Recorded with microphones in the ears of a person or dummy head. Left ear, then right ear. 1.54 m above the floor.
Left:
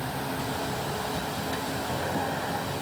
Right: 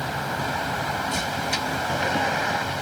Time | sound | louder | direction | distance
0.0 | a vehicle | right 5 dB | 75° right (ahead or behind) | ?